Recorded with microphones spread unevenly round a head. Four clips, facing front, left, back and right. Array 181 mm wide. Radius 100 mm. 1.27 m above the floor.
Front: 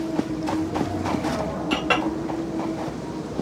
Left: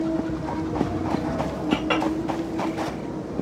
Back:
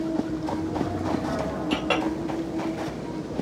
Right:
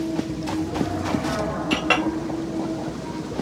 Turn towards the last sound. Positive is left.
turn(degrees=-145)